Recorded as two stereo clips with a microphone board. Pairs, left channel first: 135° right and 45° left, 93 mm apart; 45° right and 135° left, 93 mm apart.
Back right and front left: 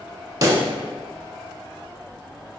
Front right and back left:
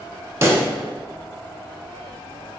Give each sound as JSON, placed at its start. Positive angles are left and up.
{"t": 0.4, "sound": "a pop", "azimuth_deg": 85, "distance_m": 0.7}